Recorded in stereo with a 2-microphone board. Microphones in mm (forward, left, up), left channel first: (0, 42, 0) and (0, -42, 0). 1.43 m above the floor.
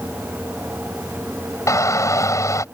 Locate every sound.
1.7 s a shout: 40° left (ahead or behind)